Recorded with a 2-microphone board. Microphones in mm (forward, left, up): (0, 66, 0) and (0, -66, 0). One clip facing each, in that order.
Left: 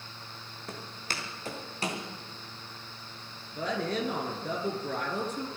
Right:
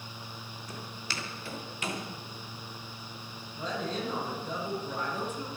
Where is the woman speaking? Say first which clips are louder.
Left 3 dB; 70° left (ahead or behind), 4 m.